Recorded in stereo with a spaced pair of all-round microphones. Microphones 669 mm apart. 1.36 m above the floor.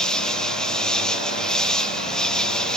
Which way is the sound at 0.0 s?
Centre (ahead or behind).